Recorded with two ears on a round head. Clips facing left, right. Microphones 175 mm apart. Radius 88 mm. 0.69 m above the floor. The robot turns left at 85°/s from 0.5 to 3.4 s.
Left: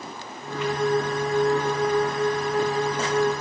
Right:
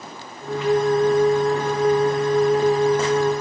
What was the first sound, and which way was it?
Only background noise.